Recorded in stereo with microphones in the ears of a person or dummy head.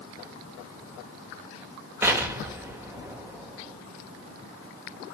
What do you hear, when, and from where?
2.0 s an explosion: 15° right (ahead or behind), 1.2 m